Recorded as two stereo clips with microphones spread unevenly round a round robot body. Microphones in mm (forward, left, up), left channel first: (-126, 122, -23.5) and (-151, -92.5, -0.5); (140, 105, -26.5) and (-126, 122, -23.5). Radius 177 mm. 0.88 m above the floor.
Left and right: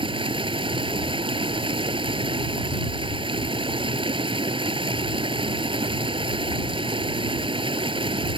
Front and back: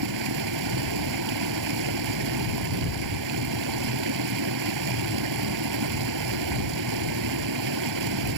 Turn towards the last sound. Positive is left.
turn(degrees=-165)